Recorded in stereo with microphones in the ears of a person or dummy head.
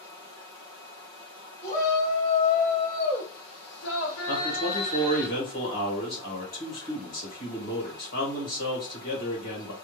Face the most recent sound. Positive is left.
turn(degrees=60)  # may be behind; listen again after turning